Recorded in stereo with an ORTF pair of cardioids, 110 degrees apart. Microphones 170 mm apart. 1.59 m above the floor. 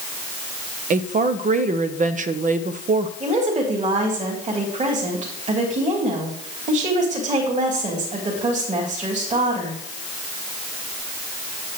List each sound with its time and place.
0.9 s a woman speaking: 50° right, 0.8 m
3.2 s a woman speaking: 45° right, 3.5 m